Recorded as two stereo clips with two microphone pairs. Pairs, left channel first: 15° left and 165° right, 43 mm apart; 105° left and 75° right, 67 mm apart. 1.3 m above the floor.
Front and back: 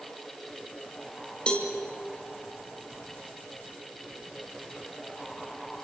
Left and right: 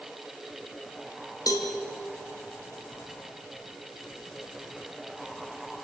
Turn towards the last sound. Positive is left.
turn(degrees=80)